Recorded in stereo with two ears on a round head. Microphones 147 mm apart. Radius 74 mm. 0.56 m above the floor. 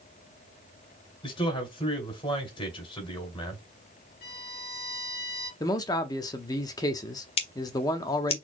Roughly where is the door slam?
No door slam in this recording.